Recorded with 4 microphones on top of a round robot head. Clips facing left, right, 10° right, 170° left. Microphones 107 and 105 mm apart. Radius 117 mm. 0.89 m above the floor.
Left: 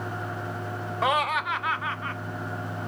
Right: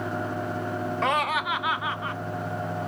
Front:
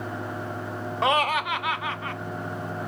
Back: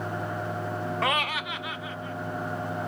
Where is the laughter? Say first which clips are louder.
Left 2 dB, front 8 dB; 25° left; by 2.2 s 15° right.